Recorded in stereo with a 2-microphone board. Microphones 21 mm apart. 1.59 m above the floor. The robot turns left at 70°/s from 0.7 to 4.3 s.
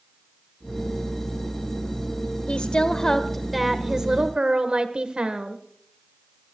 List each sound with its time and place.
2.5 s a woman speaking: 80° left, 1.4 m; by 5.6 s 50° right, 1.4 m